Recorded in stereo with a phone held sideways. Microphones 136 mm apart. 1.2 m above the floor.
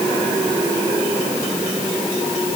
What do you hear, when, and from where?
Only background noise.